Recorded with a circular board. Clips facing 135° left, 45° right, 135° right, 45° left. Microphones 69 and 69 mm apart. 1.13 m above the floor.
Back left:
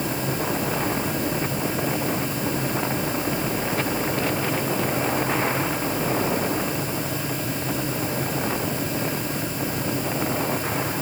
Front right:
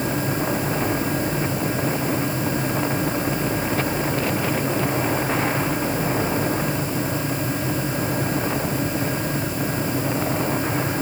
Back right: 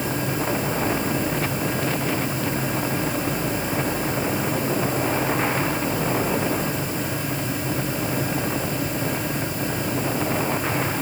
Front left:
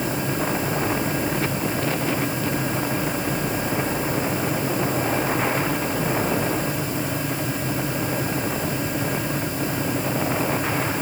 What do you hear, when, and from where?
Only background noise.